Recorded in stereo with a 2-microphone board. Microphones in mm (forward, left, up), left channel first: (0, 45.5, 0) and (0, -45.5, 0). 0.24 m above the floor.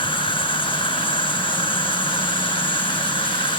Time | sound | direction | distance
0.0 | an insect | 75° left (ahead or behind) | ?